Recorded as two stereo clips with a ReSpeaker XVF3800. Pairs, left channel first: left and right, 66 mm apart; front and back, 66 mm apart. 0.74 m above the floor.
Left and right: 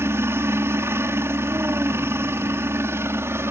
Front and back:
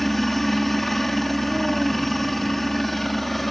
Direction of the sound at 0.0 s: 85° right.